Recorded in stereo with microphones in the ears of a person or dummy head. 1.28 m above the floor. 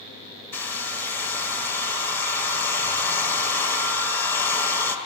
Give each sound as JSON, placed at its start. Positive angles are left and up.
{"t": 0.5, "sound": "a hair dryer", "side_deg": 10, "distance_m": 0.7}